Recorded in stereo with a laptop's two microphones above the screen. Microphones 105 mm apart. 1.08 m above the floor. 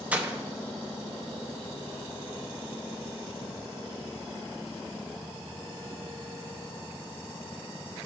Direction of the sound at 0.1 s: 15° right (ahead or behind).